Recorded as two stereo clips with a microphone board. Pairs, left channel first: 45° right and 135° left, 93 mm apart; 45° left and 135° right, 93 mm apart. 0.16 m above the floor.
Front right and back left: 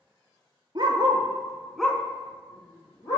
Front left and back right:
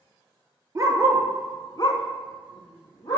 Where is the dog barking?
170° left, 1.2 m; by 3.2 s 10° left, 2 m.